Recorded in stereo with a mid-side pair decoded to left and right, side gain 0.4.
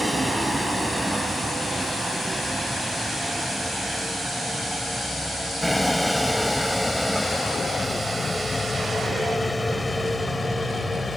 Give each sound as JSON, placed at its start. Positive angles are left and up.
{"t": 0.0, "sound": "a vehicle", "azimuth_deg": -10}